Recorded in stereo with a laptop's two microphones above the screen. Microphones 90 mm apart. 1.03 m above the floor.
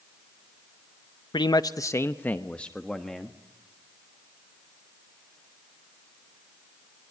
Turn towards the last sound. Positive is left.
turn(degrees=0)  # may be behind; listen again after turning